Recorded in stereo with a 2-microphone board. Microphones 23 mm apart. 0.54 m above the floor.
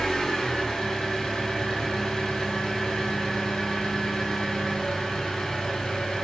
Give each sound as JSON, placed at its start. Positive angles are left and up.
{"t": 0.0, "sound": "an engine running", "side_deg": 30, "distance_m": 1.6}